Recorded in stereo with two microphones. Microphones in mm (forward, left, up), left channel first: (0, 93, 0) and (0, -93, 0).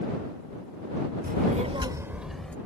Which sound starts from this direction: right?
A child speaking, at 1.2 s.